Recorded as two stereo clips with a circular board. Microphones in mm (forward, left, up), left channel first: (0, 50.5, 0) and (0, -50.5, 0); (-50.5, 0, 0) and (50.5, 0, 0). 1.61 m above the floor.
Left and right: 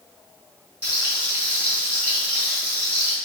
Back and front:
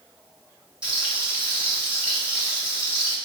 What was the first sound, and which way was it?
Frying, 55° right.